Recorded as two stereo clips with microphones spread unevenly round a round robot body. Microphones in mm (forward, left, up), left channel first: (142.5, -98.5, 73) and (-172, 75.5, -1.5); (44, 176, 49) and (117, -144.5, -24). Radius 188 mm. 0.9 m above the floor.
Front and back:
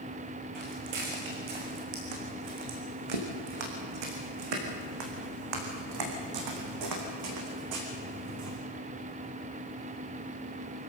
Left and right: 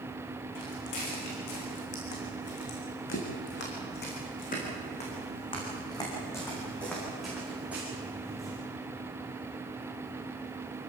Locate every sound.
0.6 s footsteps: 140° left, 5 m; by 8.6 s 160° right, 4.5 m